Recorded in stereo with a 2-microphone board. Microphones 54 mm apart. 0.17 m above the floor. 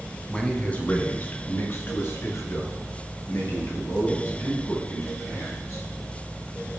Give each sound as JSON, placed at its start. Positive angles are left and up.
{"t": 0.3, "sound": "a man speaking", "side_deg": 15, "distance_m": 1.0}